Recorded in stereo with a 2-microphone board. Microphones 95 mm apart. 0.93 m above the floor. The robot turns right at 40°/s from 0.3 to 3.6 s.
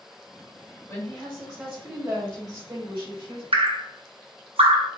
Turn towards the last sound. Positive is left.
turn(degrees=-80)